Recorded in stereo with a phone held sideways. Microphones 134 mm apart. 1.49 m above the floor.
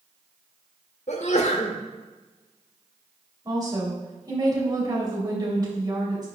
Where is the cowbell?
No cowbell in this recording.